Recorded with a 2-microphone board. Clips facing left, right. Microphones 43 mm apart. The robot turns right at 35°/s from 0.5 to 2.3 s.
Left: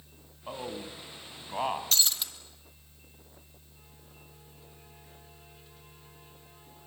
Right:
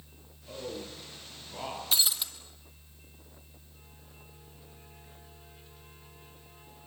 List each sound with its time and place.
0.5 s a man speaking: 80° left, 4 m; by 1.8 s 40° left (ahead or behind), 4 m
1.9 s breaking glass: 15° right (ahead or behind), 2.5 m; by 2.3 s centre (ahead or behind), 2.5 m